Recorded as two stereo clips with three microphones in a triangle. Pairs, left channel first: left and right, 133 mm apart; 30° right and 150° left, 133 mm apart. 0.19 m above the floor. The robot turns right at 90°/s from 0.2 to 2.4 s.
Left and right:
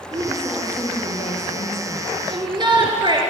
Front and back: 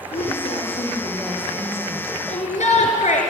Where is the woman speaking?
35° right, 7 m; by 2.2 s 145° left, 7 m.